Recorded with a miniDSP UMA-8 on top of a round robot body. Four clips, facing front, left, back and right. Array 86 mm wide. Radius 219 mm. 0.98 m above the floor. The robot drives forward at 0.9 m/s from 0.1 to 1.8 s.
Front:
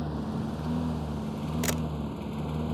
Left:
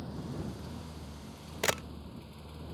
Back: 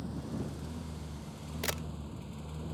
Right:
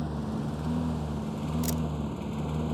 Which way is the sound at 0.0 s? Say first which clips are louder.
Right 8 dB, front 7 dB; 40° right.